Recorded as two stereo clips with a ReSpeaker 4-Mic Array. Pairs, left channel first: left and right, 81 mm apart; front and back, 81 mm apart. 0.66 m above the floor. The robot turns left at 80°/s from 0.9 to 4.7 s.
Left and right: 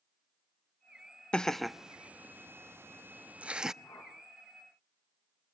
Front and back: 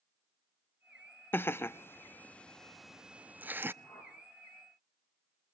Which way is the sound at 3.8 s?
50° left.